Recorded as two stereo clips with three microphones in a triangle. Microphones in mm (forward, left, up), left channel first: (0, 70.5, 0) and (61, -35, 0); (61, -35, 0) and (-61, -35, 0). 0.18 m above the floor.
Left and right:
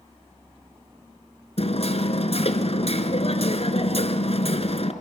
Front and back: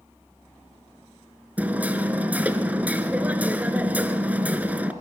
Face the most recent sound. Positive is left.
turn(degrees=105)